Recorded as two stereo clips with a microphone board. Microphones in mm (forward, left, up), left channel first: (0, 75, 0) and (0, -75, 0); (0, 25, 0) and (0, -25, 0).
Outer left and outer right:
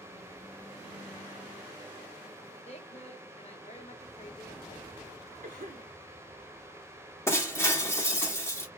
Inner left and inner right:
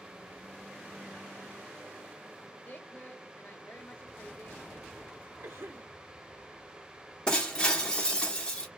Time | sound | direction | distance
2.6 | a woman speaking | 45° left (ahead or behind) | 1.2 m
5.4 | a cough | 85° right | 1.0 m
7.3 | breaking glass | 15° left (ahead or behind) | 1.0 m